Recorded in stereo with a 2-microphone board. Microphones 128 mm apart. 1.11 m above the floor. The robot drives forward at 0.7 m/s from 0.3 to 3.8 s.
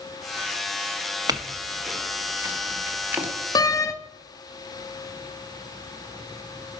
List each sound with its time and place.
1.3 s a clink: 30° right (ahead or behind), 1.1 m; by 3.3 s 15° right (ahead or behind), 2.5 m
3.5 s a door slam: 30° left (ahead or behind), 0.8 m; by 3.9 s 25° left (ahead or behind), 1.0 m